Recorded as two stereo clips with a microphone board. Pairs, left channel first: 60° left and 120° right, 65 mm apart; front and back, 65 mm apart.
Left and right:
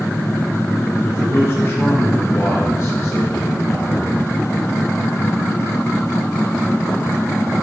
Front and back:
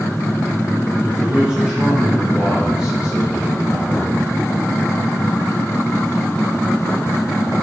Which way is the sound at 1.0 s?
110° left.